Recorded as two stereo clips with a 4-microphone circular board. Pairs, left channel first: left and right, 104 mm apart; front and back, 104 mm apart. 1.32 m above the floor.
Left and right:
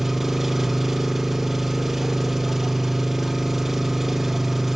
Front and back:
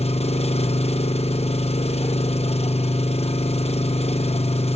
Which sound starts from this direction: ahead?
An engine running, at 0.0 s.